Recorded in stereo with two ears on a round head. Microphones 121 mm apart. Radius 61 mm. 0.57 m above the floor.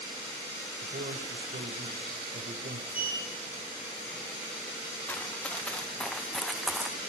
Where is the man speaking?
65° right (ahead or behind), 2.5 m.